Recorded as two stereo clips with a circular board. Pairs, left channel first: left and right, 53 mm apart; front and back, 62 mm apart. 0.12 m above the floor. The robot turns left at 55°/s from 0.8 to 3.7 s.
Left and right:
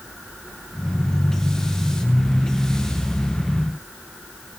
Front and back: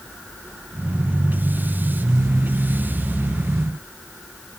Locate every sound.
Only background noise.